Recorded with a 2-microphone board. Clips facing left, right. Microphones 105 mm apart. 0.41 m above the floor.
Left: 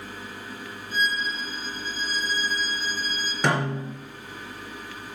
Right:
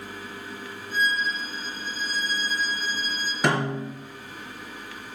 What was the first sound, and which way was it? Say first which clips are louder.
A violin: right 1 dB; centre (ahead or behind).